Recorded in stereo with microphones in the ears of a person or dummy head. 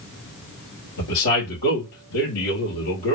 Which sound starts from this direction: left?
A man speaking, at 1.0 s.